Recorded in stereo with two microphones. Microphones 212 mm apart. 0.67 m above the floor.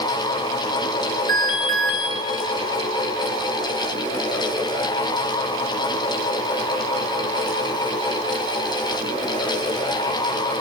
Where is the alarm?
Centre (ahead or behind), 7 m.